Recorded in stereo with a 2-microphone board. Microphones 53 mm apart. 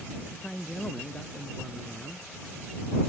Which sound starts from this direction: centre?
A man speaking, at 0.3 s.